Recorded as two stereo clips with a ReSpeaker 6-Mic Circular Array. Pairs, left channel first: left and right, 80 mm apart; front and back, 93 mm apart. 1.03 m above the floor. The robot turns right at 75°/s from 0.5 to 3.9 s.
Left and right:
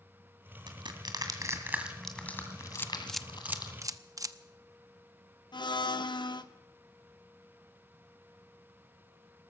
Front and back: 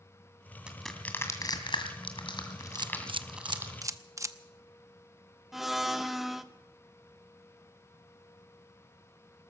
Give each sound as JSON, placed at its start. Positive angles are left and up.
{"t": 0.7, "sound": "crushing", "azimuth_deg": -105, "distance_m": 2.0}
{"t": 2.8, "sound": "a camera shutter", "azimuth_deg": 145, "distance_m": 0.6}
{"t": 5.5, "sound": "a blender", "azimuth_deg": 90, "distance_m": 0.8}